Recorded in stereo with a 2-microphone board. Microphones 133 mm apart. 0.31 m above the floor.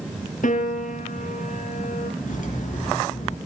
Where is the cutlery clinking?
75° left (ahead or behind), 3 m.